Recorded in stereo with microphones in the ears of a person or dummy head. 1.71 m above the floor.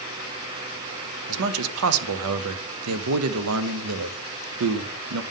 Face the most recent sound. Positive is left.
turn(degrees=-85)